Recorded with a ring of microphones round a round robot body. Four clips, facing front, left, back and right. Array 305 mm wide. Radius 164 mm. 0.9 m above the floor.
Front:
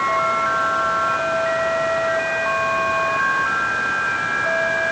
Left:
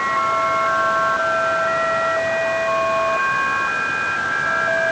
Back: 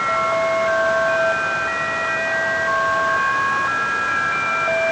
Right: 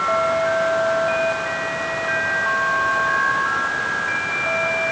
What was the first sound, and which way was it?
Only background noise.